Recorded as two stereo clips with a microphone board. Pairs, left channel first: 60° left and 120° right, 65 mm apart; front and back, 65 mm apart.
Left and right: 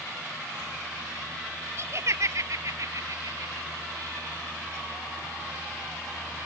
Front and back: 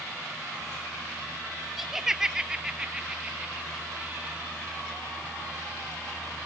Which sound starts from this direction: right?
Laughter, at 1.8 s.